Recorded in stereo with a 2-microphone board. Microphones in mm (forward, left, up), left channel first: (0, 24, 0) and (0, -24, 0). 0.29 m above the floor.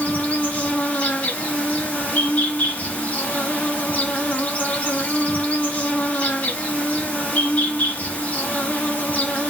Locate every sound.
0.0 s an insect: 30° left (ahead or behind), 1.6 m